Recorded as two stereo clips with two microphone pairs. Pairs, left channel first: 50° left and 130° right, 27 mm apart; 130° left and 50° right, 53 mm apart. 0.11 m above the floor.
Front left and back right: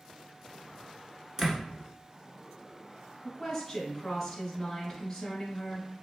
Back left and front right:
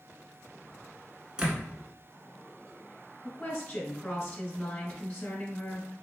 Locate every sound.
1.4 s a door slam: 75° right, 0.8 m
3.2 s a woman speaking: 95° left, 1.4 m